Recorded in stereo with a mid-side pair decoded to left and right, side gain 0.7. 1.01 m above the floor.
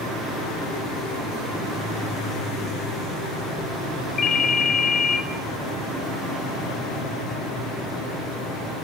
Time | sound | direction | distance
4.2 | a ringtone | 35° left | 0.9 m